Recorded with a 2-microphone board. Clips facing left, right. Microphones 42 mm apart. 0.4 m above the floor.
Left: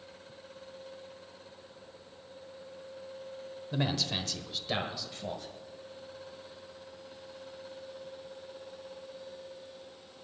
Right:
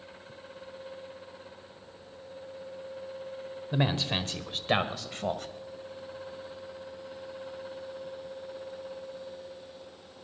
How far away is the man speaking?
About 1.2 m.